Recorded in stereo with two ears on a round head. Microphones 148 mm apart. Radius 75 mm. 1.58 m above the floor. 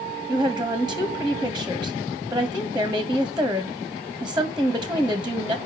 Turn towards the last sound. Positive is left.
turn(degrees=-5)  # may be behind; listen again after turning